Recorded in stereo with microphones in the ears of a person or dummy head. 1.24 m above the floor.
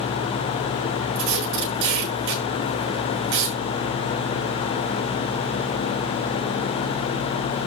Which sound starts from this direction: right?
Tape being pulled, at 1.1 s.